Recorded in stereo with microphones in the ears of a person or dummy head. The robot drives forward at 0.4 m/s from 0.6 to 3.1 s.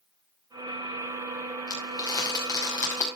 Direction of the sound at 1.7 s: 20° left (ahead or behind).